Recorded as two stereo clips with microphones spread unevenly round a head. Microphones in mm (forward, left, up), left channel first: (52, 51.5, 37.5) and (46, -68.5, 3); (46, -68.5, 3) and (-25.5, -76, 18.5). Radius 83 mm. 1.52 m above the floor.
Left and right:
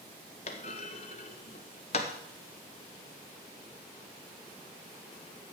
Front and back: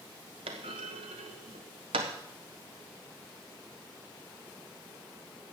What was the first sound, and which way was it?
A clunk, 145° left.